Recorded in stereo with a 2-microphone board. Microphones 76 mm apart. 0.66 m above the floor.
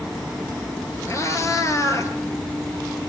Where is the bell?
No bell in this recording.